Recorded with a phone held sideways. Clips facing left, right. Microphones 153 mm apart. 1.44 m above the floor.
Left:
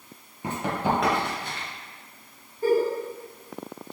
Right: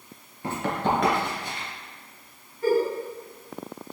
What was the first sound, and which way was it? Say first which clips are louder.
Running footsteps: even; 15° left (ahead or behind).